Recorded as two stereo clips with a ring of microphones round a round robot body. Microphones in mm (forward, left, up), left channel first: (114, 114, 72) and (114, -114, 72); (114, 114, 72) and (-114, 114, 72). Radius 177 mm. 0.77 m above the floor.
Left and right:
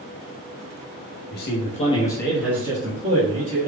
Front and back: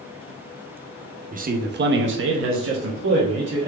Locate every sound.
1.3 s a man speaking: 125° left, 1.1 m; by 3.7 s 140° right, 1.5 m